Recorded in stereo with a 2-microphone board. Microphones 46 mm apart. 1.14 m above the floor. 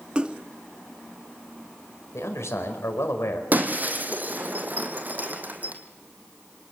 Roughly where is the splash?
Right.